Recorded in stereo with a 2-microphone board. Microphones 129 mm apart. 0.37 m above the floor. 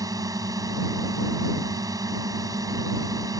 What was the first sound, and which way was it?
A drone, 30° right (ahead or behind).